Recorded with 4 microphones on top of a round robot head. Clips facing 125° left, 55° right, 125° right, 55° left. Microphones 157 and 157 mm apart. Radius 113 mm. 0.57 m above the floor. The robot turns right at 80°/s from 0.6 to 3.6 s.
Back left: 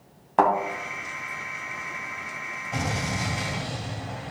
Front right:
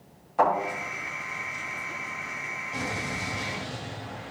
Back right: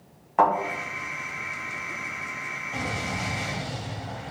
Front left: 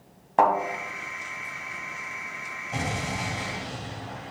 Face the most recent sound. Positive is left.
turn(degrees=170)